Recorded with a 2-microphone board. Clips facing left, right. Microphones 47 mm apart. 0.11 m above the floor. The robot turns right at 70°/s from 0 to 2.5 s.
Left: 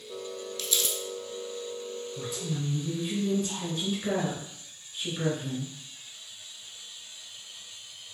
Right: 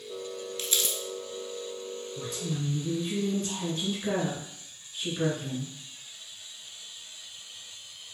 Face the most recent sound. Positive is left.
turn(degrees=0)  # may be behind; listen again after turning